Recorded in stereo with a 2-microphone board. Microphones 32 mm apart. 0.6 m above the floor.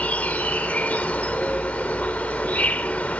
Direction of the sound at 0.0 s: 55° left (ahead or behind).